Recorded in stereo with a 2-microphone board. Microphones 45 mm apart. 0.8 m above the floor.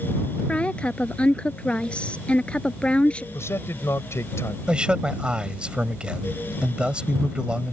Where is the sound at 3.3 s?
70° left (ahead or behind).